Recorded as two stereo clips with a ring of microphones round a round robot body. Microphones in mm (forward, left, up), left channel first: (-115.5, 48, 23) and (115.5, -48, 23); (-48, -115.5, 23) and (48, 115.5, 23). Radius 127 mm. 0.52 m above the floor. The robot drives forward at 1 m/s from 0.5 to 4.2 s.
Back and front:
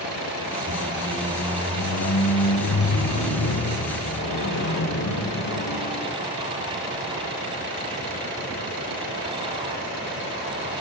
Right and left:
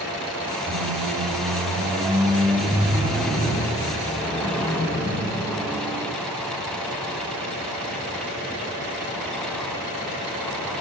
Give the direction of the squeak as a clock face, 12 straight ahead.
11 o'clock.